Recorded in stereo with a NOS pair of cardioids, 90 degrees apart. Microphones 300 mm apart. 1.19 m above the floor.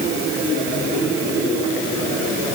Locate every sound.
Only background noise.